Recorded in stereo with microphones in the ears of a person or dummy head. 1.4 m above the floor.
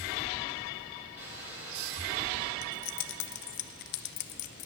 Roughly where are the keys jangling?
Left.